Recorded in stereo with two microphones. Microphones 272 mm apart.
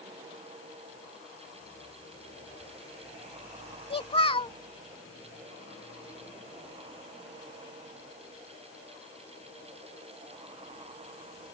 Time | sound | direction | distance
3.9 | a child speaking | 20° left (ahead or behind) | ?